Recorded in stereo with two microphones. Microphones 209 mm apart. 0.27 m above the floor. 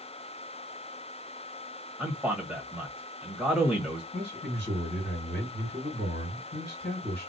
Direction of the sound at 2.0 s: 5° right (ahead or behind).